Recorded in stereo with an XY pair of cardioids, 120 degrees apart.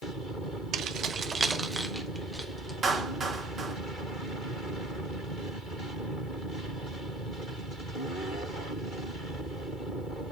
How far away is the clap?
About 3 m.